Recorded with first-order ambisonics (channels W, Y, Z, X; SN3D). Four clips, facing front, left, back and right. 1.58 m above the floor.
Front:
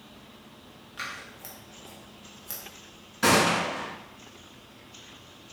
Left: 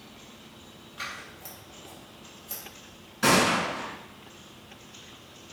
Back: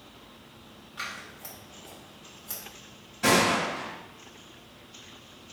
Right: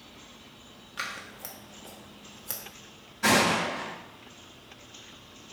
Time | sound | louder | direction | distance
1.0 | scissors | right 2 dB, even | 80° right | 1.0 m
3.2 | a gunshot | left 1 dB, front 1 dB | 30° left | 1.5 m